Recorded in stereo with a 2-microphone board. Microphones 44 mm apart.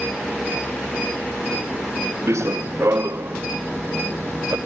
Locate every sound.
2.3 s running footsteps: 80° right; by 4.6 s 75° right (ahead or behind)